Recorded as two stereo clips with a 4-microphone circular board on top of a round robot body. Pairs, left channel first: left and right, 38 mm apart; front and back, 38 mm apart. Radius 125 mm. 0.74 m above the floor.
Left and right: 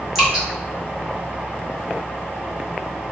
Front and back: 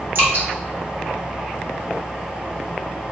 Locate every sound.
0.1 s dripping: 175° right, 1.3 m